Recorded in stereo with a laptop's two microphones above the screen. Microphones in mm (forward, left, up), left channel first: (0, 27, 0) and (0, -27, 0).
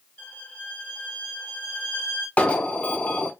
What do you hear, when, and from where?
0.2 s a violin: 25° left (ahead or behind), 3 m
2.4 s an alarm: 25° left (ahead or behind), 1.0 m